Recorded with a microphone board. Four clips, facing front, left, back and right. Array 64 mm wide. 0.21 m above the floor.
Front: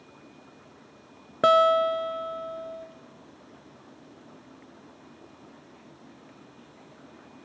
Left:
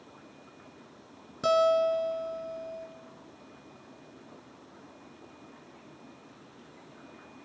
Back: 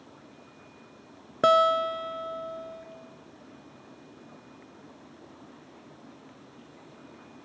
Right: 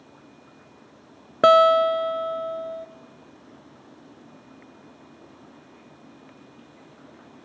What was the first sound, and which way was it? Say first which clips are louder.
A guitar: right 9 dB, front 2 dB; 90° right.